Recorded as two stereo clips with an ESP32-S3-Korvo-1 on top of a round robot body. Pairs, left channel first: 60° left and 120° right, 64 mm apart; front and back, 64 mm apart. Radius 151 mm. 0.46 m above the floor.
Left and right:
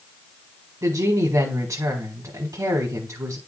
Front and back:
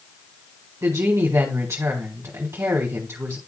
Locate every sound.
0.8 s a woman speaking: 140° right, 1.5 m